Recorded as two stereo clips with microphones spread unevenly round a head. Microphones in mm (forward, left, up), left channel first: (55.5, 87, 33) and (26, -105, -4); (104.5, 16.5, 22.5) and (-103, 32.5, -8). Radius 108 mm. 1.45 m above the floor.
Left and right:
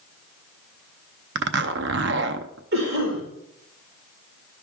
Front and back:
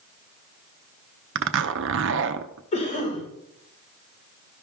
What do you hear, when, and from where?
1.4 s a zipper: 145° right, 0.6 m
2.7 s a cough: 65° right, 5 m